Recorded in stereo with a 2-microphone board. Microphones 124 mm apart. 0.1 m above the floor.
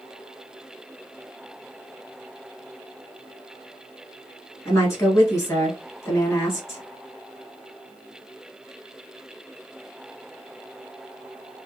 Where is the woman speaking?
20° left (ahead or behind), 1.4 m.